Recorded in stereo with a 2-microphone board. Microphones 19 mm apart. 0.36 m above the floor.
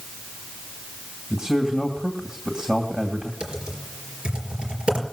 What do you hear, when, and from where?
1.3 s a man speaking: 45° right (ahead or behind), 2.5 m
3.4 s typing on a keyboard: 75° right (ahead or behind), 4.5 m